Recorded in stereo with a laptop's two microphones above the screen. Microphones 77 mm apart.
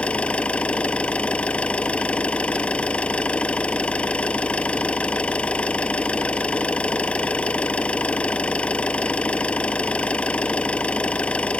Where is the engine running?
15° left (ahead or behind).